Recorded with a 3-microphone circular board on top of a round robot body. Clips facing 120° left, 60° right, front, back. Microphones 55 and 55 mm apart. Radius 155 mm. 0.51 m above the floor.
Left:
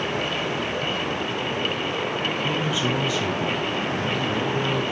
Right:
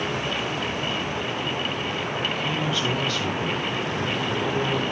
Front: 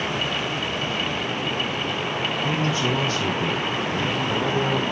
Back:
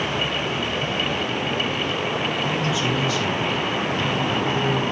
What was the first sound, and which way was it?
A man speaking, 40° left.